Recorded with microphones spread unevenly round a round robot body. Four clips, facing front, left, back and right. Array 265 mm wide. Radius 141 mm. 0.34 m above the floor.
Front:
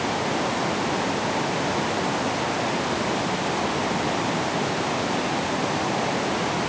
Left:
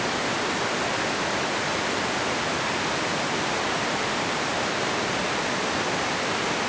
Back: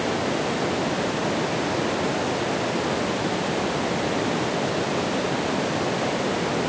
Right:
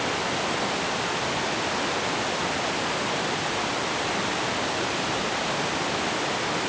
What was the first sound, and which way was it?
Only background noise.